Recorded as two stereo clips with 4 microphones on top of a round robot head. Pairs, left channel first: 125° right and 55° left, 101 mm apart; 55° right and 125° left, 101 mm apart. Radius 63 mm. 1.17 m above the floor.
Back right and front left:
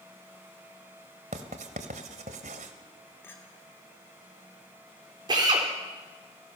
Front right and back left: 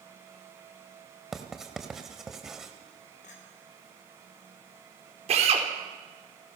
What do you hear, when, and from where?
1.3 s writing: 40° left, 1.7 m
3.2 s a clink: 60° right, 3 m
5.3 s a drill: 105° left, 4 m